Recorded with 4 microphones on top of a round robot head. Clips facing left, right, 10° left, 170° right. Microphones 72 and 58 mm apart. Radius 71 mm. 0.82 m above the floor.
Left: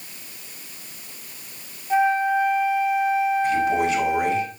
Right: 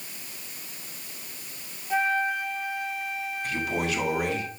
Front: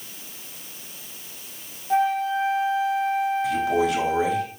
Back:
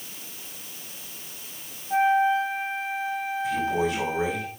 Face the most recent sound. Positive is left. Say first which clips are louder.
# left 9 dB, front 3 dB
turn(degrees=30)